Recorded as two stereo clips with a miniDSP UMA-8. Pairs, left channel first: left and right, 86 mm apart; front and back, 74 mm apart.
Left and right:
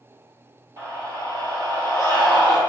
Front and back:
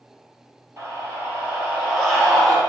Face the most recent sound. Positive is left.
turn(degrees=-90)